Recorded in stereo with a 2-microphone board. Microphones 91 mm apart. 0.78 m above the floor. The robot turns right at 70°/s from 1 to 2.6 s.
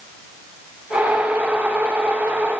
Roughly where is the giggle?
I don't hear a giggle.